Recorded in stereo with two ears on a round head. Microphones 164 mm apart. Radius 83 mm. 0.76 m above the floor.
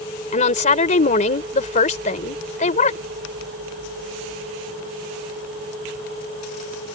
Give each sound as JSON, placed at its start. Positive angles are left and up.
{"t": 0.3, "sound": "a woman speaking", "side_deg": 45}